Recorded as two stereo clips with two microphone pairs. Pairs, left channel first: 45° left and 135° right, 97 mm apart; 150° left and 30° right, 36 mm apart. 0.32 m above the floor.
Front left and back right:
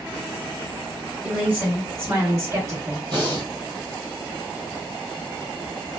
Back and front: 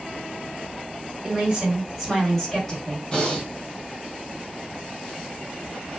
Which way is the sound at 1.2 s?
70° right.